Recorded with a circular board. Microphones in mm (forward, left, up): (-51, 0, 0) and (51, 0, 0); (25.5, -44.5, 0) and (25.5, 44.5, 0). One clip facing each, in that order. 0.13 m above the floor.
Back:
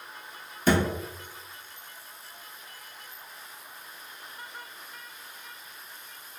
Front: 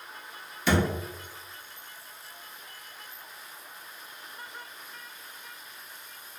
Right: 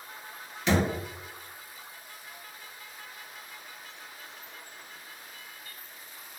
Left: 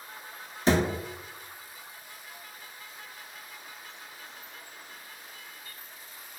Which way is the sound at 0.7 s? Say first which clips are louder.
Back 2 dB, left 2 dB; 140° left.